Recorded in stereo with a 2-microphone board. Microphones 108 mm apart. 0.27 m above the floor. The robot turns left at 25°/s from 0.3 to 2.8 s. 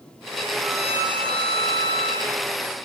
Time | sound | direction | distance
0.6 | a violin | straight ahead | 5.5 m